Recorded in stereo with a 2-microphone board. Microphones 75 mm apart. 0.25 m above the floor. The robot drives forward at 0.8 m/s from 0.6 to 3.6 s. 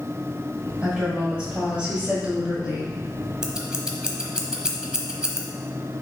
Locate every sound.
0.8 s a woman speaking: 15° right (ahead or behind), 1.6 m
3.4 s scissors: 10° right (ahead or behind), 0.8 m